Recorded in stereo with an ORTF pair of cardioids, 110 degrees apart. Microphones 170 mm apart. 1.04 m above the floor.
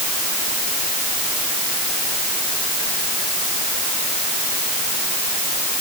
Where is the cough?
I don't hear a cough.